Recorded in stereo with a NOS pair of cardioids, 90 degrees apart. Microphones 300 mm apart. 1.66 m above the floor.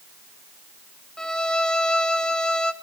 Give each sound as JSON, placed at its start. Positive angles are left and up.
{"t": 1.2, "sound": "a violin", "azimuth_deg": 5, "distance_m": 1.0}